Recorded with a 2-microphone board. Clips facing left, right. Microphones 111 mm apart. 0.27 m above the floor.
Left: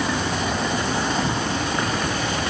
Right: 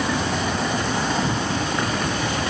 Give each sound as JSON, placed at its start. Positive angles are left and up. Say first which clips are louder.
{"t": 0.0, "sound": "an insect", "louder": "right 1 dB", "side_deg": 10, "distance_m": 3.0}